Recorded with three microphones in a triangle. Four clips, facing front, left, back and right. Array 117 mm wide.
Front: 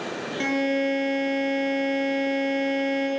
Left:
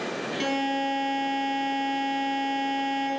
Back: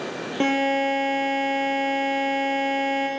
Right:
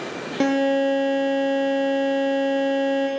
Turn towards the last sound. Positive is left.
turn(degrees=-125)